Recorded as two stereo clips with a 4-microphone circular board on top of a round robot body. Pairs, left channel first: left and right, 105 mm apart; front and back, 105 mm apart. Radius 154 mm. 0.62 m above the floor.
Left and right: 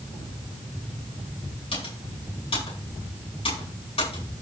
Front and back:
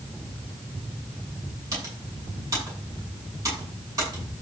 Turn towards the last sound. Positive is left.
turn(degrees=120)